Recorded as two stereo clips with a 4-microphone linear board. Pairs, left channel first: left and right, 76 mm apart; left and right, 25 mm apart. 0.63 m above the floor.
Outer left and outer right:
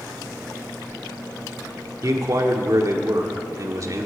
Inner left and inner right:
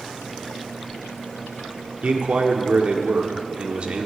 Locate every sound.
2.0 s a man speaking: 45° right (ahead or behind), 1.7 m